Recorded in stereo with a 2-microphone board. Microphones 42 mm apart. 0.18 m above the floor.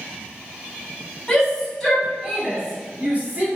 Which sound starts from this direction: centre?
A shout, at 1.3 s.